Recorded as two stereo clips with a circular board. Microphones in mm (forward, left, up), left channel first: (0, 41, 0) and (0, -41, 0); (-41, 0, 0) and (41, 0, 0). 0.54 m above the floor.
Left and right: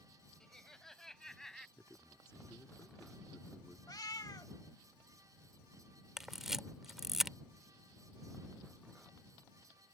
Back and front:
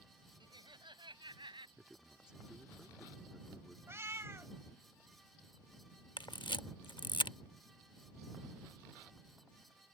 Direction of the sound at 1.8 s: 70° left.